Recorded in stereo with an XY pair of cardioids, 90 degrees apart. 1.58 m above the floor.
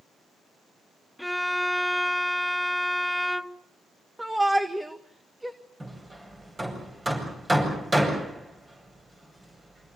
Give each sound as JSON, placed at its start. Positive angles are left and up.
{"t": 1.2, "sound": "a violin", "azimuth_deg": 5, "distance_m": 0.7}
{"t": 4.2, "sound": "a shout", "azimuth_deg": -10, "distance_m": 1.6}
{"t": 5.8, "sound": "hammering", "azimuth_deg": -20, "distance_m": 8.0}